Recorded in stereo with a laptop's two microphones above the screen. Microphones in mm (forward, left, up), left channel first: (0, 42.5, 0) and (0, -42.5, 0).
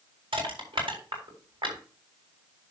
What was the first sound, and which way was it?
Crushing, 80° right.